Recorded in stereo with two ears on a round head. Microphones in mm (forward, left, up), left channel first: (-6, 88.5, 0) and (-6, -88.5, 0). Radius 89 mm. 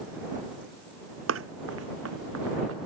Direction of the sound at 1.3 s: 75° right (ahead or behind).